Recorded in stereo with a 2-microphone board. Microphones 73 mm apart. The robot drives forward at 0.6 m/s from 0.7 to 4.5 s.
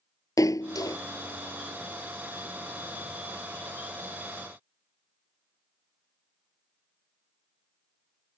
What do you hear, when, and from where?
0.4 s a splash: 55° left (ahead or behind); by 1.0 s 60° left (ahead or behind)